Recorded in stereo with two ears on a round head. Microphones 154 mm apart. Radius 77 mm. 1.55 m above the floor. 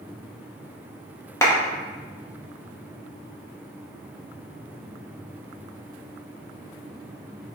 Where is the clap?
15° left (ahead or behind), 0.8 m.